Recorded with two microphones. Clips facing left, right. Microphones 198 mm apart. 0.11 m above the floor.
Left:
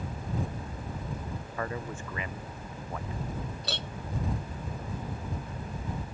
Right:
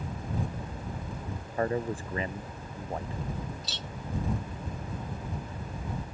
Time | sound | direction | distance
1.6 | a man speaking | 35° right (ahead or behind) | ?
3.6 | a clink | 65° left (ahead or behind) | ?